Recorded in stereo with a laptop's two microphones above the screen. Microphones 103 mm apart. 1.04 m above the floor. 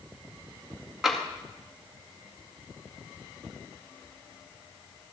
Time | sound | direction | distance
1.0 | tapping | 5° right (ahead or behind) | 2.0 m